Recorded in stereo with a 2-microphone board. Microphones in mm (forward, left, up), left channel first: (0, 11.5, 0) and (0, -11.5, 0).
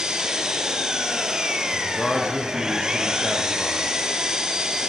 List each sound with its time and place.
0.0 s an engine running: 30° right (ahead or behind), 2.5 m
1.7 s a man speaking: 35° left (ahead or behind), 5.5 m